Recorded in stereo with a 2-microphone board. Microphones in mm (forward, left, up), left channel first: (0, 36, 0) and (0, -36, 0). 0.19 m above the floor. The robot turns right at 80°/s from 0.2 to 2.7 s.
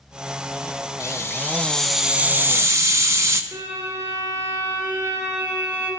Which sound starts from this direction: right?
A violin, at 3.5 s.